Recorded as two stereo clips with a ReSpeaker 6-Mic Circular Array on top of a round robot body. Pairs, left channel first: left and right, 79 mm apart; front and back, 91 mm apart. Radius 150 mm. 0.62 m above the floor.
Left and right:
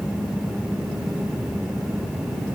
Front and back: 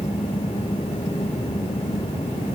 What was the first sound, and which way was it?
Only background noise.